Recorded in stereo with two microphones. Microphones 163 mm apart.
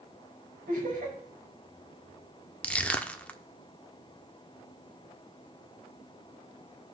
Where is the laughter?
65° right (ahead or behind), 4.5 m.